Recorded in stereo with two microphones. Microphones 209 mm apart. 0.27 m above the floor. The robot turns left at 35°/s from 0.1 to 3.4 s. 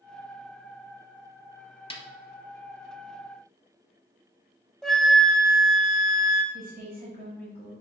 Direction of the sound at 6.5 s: 45° right (ahead or behind).